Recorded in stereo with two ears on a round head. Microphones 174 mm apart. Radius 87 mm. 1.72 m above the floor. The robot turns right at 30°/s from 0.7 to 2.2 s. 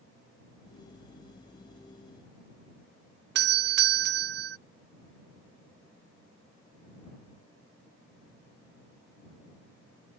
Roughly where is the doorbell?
Right.